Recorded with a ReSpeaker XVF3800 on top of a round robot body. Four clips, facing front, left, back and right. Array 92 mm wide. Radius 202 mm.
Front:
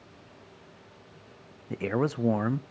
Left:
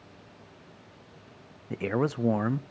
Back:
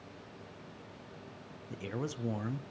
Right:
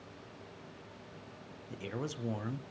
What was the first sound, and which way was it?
A man speaking, 45° left.